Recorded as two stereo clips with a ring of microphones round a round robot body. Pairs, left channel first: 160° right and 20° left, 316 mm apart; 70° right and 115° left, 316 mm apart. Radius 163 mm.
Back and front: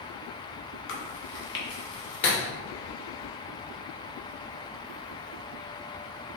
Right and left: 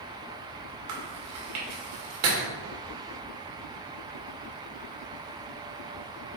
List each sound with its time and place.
0.9 s chewing: 150° left, 2.0 m